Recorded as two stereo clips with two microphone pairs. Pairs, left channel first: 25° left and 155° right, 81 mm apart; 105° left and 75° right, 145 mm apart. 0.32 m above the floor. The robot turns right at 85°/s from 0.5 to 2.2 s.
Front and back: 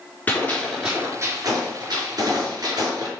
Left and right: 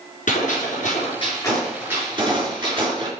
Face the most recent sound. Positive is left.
turn(degrees=-125)